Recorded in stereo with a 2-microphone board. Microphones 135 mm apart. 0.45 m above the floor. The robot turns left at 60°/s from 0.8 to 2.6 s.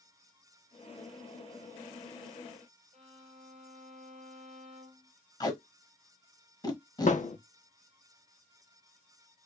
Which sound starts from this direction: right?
A violin, at 2.9 s.